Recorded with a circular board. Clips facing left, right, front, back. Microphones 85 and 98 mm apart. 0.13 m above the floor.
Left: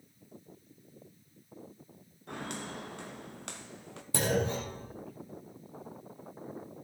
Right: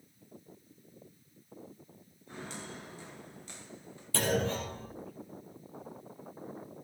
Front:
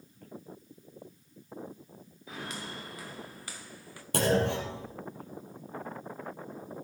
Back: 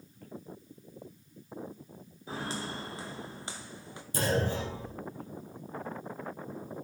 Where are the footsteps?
120° left, 3 m; by 4.0 s 110° left, 1.9 m.